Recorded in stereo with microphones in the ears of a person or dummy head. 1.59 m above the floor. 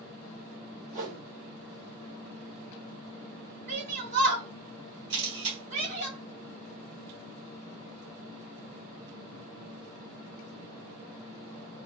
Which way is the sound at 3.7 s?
50° right (ahead or behind).